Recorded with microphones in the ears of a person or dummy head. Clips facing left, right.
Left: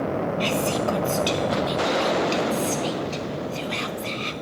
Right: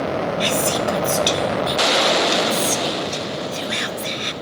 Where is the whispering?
15° right (ahead or behind), 0.9 m.